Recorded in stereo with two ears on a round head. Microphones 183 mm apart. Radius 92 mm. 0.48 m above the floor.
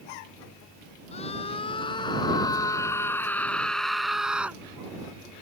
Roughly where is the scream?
Left.